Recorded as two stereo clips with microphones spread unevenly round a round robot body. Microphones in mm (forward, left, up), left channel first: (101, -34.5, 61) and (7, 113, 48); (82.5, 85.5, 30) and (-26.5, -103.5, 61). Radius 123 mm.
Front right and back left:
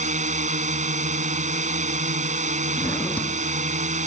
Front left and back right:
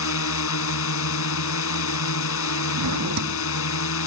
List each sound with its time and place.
0.0 s a drone: 75° left
2.8 s a drawer: 140° right